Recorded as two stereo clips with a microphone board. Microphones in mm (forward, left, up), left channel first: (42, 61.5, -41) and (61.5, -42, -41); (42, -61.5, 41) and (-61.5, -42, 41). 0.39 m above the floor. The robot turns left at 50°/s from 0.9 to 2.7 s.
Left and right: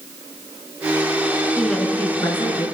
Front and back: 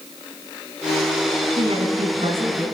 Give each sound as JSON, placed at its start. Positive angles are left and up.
{"t": 1.6, "sound": "a woman speaking", "azimuth_deg": -170, "distance_m": 3.5}